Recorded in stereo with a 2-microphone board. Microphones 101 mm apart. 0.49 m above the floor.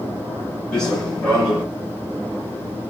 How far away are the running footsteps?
About 3.5 m.